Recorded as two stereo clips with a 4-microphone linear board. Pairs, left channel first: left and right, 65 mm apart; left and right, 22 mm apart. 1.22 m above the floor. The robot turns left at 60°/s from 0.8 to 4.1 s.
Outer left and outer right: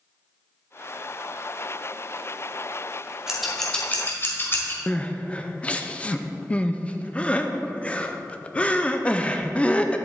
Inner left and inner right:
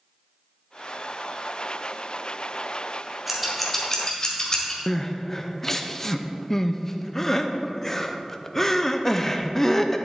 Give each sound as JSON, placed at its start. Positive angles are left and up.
{"t": 3.3, "sound": "scissors", "side_deg": -10, "distance_m": 1.9}
{"t": 4.9, "sound": "crying", "side_deg": 20, "distance_m": 0.6}